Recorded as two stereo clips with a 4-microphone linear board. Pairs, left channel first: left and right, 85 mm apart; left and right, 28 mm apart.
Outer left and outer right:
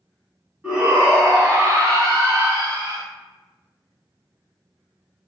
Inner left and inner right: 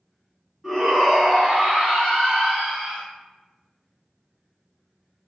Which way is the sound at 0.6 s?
10° right (ahead or behind).